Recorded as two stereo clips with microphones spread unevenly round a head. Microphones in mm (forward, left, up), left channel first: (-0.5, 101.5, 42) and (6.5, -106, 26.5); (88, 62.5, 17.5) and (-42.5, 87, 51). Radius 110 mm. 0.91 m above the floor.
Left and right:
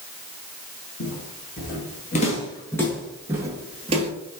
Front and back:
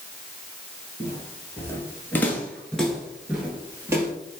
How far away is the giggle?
I don't hear a giggle.